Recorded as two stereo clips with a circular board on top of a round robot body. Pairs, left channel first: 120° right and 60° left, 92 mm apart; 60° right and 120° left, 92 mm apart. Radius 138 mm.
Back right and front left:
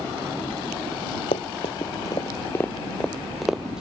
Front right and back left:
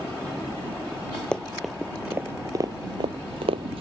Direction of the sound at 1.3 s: 140° right.